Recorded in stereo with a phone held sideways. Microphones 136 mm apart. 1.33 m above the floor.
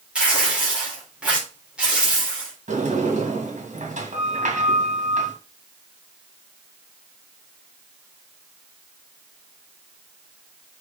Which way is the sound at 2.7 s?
70° right (ahead or behind).